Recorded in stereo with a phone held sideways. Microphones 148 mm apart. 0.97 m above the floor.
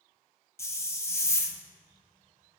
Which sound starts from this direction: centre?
A hiss, at 0.6 s.